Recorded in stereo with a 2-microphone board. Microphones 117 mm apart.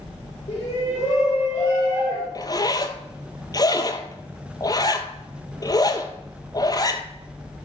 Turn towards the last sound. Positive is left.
turn(degrees=30)  # may be behind; listen again after turning